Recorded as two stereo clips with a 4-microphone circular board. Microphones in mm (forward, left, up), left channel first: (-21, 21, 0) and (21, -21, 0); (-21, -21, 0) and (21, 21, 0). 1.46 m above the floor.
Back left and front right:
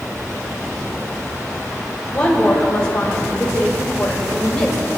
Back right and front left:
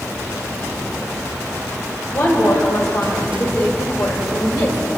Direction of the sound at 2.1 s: 155° right.